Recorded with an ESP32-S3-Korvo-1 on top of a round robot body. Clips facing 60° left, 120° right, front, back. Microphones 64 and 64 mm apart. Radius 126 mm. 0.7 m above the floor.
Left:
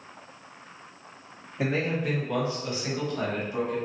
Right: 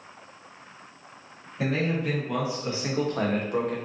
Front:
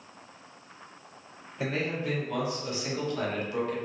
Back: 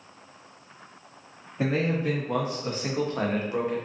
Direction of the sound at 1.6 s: 135° left.